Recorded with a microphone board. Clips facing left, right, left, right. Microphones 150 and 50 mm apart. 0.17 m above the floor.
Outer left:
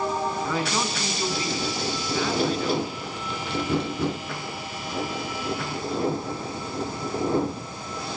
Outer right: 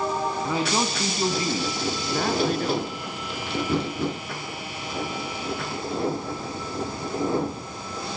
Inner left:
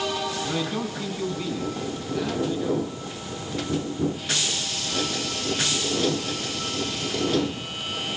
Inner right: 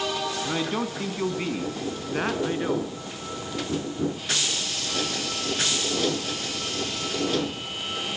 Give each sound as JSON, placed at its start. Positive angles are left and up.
{"t": 0.5, "sound": "a man speaking", "side_deg": -15, "distance_m": 1.8}